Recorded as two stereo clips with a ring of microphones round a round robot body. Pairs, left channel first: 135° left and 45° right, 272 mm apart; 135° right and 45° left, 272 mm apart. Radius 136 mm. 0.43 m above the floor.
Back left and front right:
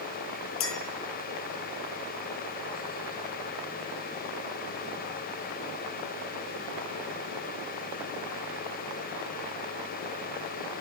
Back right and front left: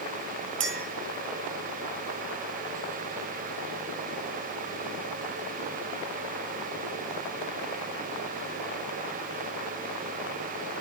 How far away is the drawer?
No drawer in this recording.